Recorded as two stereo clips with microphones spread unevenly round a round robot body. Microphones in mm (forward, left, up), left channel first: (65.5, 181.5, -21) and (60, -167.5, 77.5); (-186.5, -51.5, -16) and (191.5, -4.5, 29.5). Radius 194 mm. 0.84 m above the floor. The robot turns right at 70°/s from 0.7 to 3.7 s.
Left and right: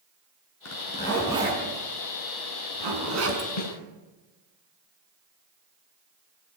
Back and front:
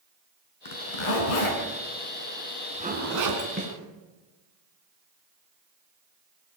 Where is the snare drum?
75° left, 6.5 m; by 3.7 s 85° left, 6.5 m.